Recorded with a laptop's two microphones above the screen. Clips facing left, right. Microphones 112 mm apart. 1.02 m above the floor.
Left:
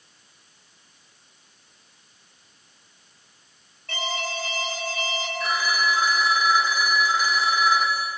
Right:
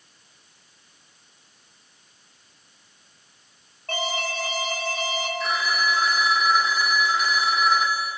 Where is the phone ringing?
Centre (ahead or behind), 1.6 m.